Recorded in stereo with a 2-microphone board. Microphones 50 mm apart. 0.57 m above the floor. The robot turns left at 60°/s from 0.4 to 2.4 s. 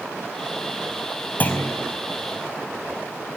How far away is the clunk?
About 5 m.